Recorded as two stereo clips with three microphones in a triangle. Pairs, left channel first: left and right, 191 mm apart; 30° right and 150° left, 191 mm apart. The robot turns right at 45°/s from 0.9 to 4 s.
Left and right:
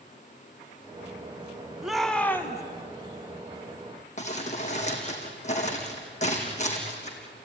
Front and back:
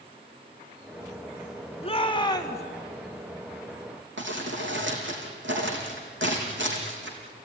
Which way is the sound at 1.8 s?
5° right.